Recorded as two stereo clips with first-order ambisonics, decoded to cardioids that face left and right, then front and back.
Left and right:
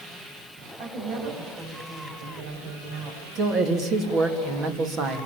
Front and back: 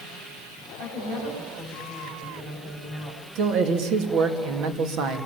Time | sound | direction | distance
0.8 | a woman speaking | 130° right | 9 m
3.4 | a man speaking | 145° right | 3 m